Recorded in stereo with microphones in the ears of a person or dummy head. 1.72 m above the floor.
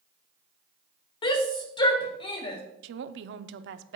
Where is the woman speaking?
70° right (ahead or behind), 0.7 m.